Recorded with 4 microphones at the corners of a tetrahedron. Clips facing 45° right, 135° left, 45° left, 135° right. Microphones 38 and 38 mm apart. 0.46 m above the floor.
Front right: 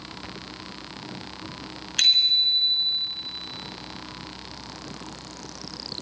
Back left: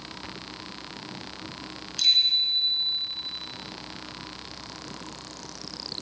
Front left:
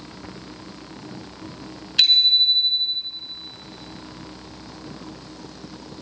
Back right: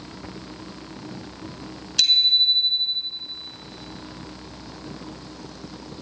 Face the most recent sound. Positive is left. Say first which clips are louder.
# front right 2 dB, front left 2 dB
turn(degrees=-15)